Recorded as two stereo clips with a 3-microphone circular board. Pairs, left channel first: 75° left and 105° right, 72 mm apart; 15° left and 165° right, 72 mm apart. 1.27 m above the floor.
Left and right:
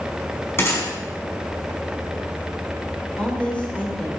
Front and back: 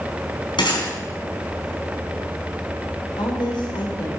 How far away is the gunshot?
About 5 m.